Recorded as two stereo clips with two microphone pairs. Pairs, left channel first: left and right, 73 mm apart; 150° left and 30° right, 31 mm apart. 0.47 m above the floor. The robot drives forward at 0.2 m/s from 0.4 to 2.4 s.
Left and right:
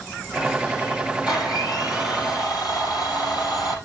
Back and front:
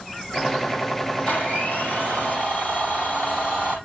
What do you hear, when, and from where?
1.3 s a blender: 110° left, 8 m; by 3.8 s 115° left, 8 m